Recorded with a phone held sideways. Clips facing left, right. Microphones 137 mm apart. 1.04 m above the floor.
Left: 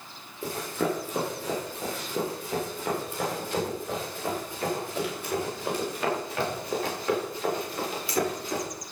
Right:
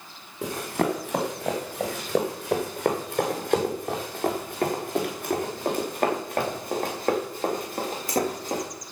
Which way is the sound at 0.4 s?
75° right (ahead or behind).